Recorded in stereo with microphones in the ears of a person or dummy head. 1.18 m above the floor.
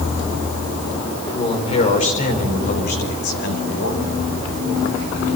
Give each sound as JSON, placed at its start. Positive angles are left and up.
{"t": 1.2, "sound": "a man speaking", "side_deg": 25, "distance_m": 3.5}